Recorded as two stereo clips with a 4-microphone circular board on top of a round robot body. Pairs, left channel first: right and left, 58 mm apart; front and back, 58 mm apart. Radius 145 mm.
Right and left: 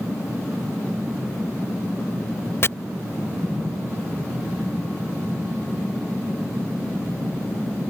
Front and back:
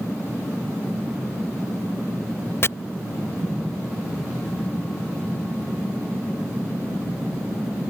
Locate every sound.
2.6 s chopping: 45° right